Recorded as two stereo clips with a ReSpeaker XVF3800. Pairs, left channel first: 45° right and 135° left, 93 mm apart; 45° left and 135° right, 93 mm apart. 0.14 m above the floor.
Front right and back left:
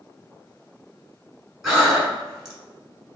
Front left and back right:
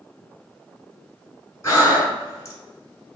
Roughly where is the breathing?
Ahead left.